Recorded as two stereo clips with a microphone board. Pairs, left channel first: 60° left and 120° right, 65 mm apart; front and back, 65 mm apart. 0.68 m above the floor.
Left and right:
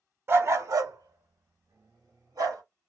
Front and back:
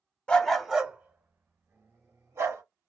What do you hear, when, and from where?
0.3 s a dog barking: 70° right, 0.5 m; by 2.6 s 140° right, 1.4 m